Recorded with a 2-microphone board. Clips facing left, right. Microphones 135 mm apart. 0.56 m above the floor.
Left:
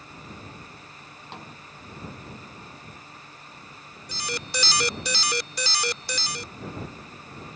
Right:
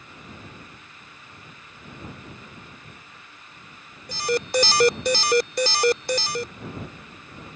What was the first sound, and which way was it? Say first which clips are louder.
A snare drum: left 9 dB; 80° left.